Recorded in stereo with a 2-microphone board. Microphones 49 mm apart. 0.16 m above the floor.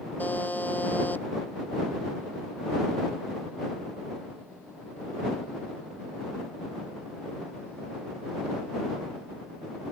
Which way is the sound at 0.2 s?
35° left (ahead or behind).